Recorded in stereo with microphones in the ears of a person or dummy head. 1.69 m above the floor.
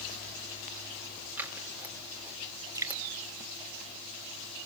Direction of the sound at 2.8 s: 20° right (ahead or behind).